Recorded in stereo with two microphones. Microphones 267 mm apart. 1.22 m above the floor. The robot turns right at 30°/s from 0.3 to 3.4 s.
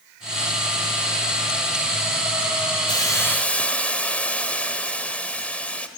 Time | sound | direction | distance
2.9 | a hiss | 15° left (ahead or behind) | 1.3 m